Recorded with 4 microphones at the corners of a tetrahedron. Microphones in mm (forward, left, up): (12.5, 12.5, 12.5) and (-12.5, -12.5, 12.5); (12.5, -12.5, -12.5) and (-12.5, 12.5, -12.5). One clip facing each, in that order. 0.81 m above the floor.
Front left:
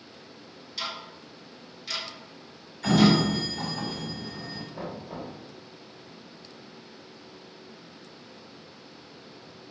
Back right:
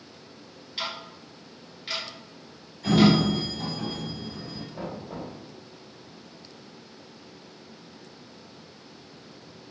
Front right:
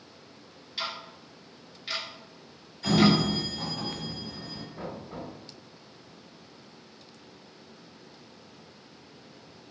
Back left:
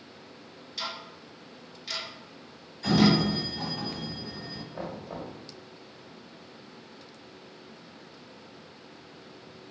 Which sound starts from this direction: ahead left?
A sliding door, at 2.8 s.